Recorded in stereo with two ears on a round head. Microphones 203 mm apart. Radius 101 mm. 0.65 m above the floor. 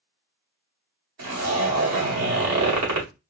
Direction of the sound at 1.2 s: 80° right.